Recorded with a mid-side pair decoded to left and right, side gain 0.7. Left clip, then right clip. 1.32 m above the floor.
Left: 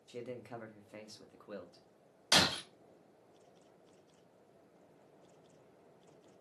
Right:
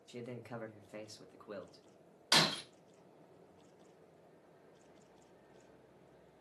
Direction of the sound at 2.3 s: 20° left.